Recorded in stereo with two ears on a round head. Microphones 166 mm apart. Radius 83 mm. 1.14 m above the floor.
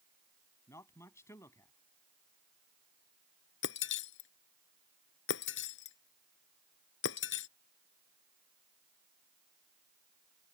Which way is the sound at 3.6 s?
70° left (ahead or behind).